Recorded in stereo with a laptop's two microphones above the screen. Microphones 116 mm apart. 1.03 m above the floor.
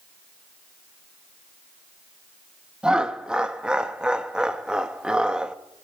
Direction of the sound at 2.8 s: 5° right (ahead or behind).